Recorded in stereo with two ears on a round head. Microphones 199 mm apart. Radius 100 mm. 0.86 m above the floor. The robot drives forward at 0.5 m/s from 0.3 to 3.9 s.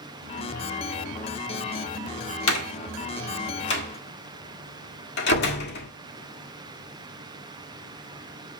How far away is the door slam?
About 1.4 m.